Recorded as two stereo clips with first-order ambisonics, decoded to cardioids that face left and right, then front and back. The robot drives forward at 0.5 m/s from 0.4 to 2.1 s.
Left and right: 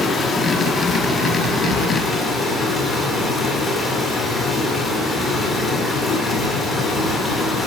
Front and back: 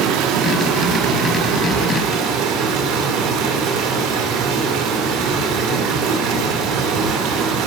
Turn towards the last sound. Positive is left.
turn(degrees=170)